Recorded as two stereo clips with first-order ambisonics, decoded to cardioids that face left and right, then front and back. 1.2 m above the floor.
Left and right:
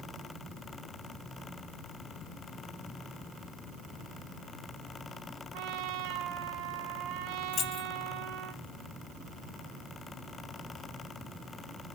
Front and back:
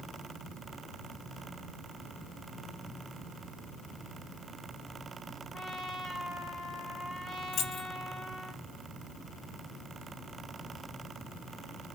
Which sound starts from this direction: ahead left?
Keys jangling, at 7.5 s.